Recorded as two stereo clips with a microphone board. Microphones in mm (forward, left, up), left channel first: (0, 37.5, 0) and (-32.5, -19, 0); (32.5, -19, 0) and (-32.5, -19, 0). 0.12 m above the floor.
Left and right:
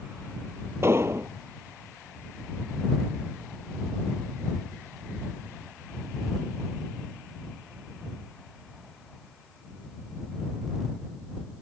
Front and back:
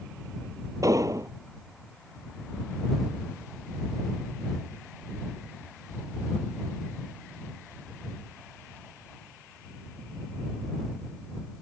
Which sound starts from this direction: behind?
An explosion, at 0.8 s.